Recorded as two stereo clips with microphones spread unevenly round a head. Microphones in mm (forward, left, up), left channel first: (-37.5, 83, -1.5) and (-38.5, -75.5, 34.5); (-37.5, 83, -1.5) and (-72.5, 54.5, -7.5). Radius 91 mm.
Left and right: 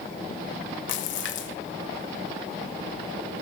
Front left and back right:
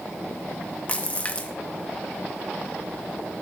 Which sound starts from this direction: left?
A splash, at 0.9 s.